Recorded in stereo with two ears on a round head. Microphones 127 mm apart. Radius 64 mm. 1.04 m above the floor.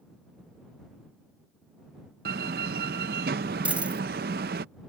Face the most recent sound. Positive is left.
turn(degrees=-10)  # may be behind; listen again after turning